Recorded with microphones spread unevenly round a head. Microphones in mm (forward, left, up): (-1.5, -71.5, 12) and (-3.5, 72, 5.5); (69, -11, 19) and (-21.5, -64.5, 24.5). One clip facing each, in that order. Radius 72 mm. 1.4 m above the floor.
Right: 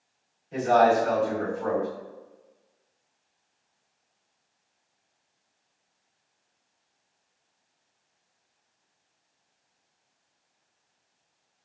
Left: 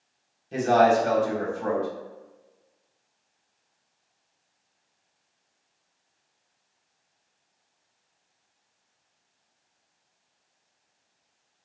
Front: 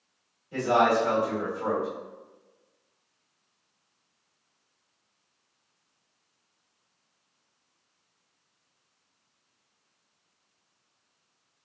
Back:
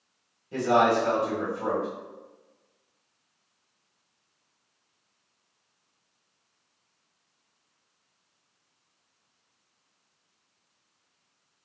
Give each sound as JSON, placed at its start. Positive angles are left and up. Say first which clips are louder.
{"t": 0.5, "sound": "a man speaking", "louder": "left 1 dB, back 1 dB", "azimuth_deg": 140, "distance_m": 1.4}